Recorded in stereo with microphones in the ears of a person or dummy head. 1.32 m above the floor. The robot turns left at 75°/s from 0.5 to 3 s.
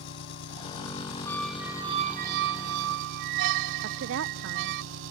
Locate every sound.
0.0 s an engine running: 110° left; by 5.1 s 75° right
1.3 s a squeak: 15° left; by 4.8 s 115° right
3.8 s a woman speaking: 70° right (ahead or behind)